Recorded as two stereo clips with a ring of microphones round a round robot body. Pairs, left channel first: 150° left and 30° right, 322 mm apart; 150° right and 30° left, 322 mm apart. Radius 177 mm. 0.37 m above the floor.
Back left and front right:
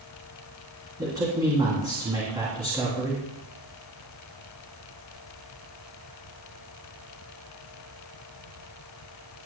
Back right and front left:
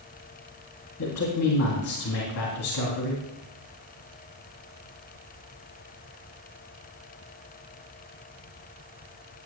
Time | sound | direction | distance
1.0 | a man speaking | 110° right | 3.5 m